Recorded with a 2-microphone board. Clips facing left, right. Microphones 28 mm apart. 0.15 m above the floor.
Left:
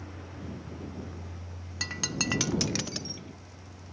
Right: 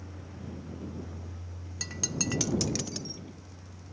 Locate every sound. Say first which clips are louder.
0.0 s a vehicle: left 2 dB; 20° left (ahead or behind); by 3.9 s 5° left (ahead or behind)
1.8 s breaking glass: left 3 dB; 25° left (ahead or behind)